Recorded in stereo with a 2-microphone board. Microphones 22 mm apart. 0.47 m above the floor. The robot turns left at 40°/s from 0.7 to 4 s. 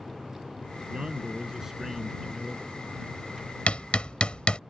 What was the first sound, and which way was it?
A man speaking, 125° right.